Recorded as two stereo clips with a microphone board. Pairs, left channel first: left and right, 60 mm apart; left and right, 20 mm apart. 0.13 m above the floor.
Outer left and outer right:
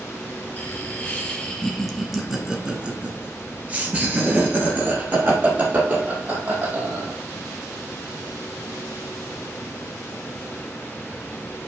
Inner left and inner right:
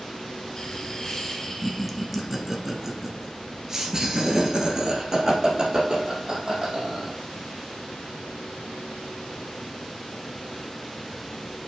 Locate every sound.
0.6 s laughter: 25° left (ahead or behind), 1.3 m; by 7.2 s 35° right (ahead or behind), 4 m